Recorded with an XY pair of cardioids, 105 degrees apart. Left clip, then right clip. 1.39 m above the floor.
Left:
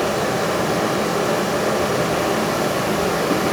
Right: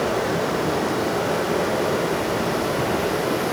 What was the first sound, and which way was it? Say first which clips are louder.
Running water: left 2 dB; 65° left.